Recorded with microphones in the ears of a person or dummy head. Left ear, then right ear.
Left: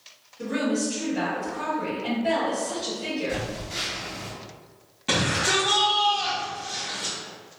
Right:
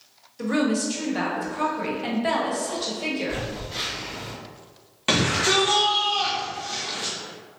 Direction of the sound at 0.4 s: 60° right (ahead or behind).